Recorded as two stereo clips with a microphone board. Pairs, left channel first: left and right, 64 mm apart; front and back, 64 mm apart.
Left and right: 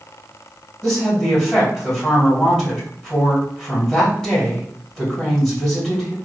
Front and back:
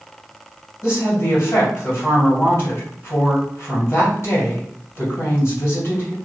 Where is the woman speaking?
10° left, 1.7 m.